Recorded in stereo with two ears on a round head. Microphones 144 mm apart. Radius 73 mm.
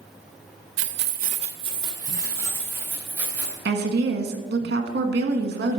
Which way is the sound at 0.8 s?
80° right.